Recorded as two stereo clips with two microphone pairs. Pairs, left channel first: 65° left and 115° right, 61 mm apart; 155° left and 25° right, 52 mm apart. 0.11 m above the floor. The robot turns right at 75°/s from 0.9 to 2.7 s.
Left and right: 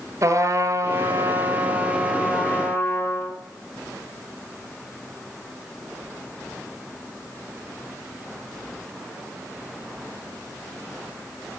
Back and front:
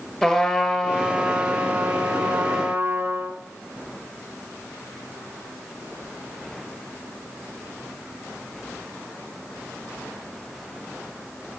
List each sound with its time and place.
0.2 s a trumpet: 130° right, 1.3 m; by 3.4 s 5° left, 1.3 m